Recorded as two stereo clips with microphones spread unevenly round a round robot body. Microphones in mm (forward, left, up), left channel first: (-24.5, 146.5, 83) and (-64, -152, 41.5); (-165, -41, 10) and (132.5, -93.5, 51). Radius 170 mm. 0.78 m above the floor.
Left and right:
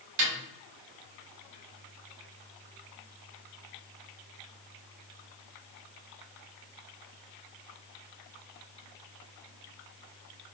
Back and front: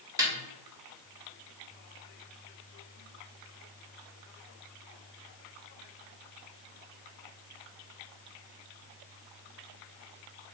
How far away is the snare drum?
About 1.2 m.